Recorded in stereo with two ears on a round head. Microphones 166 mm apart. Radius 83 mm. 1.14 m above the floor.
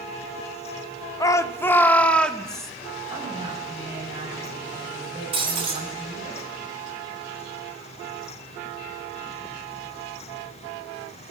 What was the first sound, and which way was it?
A shout, 20° left (ahead or behind).